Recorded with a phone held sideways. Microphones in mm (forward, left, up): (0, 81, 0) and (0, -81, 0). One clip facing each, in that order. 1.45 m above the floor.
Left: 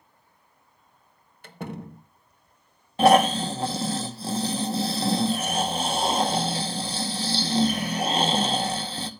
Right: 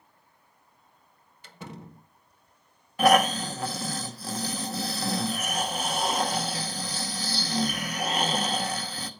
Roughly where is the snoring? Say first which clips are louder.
Left 3 dB; left.